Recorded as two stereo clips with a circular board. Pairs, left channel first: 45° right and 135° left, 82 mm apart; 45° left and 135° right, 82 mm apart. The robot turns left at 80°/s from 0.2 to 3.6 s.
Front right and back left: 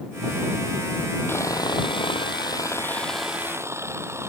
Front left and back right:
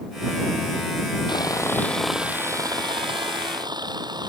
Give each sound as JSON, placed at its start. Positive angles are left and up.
{"t": 1.3, "sound": "sawing", "azimuth_deg": 15}